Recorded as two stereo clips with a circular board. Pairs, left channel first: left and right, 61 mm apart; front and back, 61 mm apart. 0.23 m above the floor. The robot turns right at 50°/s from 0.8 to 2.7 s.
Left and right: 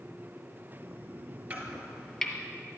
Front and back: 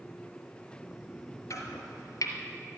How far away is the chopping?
About 2 m.